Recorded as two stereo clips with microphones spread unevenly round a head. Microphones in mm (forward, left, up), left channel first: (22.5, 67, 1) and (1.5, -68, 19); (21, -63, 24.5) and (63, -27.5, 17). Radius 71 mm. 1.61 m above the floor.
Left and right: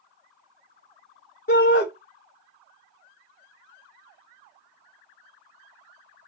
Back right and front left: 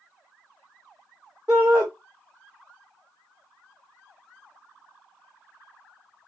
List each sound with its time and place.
1.5 s a shout: 105° left, 1.0 m